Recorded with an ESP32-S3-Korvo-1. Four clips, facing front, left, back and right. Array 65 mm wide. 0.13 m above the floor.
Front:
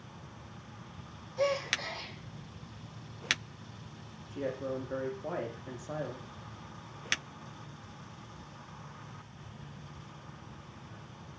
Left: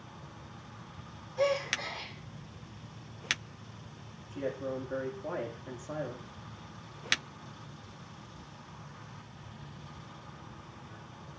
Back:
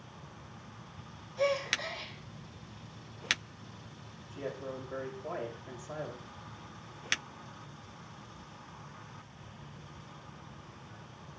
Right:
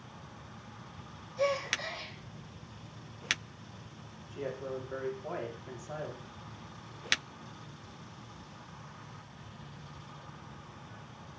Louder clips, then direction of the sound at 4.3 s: Left 2 dB, front 4 dB; 30° left.